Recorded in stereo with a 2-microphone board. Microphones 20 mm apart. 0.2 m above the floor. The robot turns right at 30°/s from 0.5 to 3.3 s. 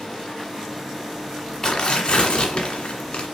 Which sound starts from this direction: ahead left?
Tearing paper, at 1.6 s.